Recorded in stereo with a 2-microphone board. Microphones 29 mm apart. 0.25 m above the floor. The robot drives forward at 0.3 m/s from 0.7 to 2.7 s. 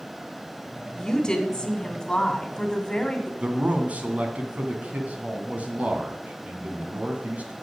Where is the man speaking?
55° right (ahead or behind), 2.5 m.